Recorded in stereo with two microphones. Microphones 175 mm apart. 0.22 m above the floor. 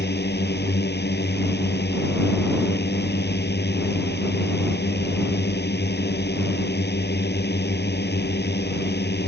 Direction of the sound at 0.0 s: 75° left (ahead or behind).